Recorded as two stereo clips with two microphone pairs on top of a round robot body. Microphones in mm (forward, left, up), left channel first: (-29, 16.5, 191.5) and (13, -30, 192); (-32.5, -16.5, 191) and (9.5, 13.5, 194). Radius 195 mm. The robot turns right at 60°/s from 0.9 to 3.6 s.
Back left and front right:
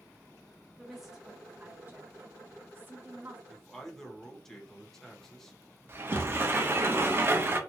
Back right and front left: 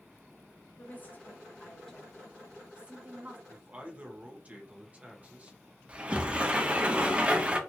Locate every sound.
0.8 s a woman speaking: 140° right, 1.4 m; by 3.4 s 10° left, 1.4 m
3.5 s a man speaking: 50° left, 1.4 m; by 5.6 s 60° left, 1.4 m
5.9 s a sliding door: 25° right, 0.9 m